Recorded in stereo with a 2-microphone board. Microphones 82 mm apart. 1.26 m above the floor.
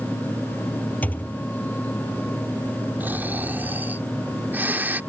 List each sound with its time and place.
1.0 s a thud: 20° left (ahead or behind)
3.0 s snoring: 25° right (ahead or behind)